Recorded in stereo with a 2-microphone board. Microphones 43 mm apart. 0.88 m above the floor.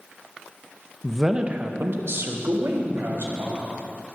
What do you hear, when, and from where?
1.0 s a man speaking: 10° left (ahead or behind), 0.6 m; by 3.6 s 70° right (ahead or behind), 3 m